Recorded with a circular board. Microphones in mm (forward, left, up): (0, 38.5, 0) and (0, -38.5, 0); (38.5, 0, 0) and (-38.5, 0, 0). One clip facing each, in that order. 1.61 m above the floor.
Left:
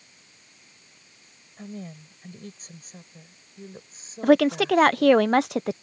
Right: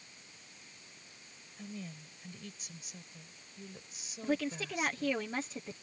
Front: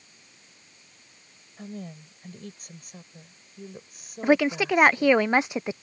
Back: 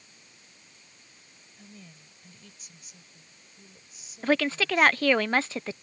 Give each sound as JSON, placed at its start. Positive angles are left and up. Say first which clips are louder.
{"t": 1.6, "sound": "a woman speaking", "louder": "left 7 dB, front 12 dB", "azimuth_deg": 40}
{"t": 4.2, "sound": "a woman speaking", "louder": "left 16 dB, front 4 dB", "azimuth_deg": 75}